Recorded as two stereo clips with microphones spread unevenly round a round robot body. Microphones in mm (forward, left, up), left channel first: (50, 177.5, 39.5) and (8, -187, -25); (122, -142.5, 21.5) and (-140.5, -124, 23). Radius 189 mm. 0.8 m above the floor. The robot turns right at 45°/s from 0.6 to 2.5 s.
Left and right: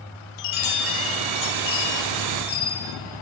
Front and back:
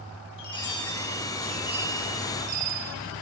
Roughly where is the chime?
Left.